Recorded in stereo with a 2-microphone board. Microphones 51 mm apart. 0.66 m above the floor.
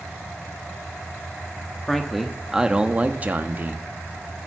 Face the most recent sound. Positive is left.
turn(degrees=-40)  # may be behind; listen again after turning